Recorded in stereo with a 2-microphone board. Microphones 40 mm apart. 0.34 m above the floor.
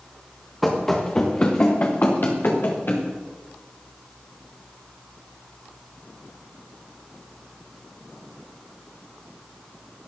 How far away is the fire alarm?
I don't hear a fire alarm.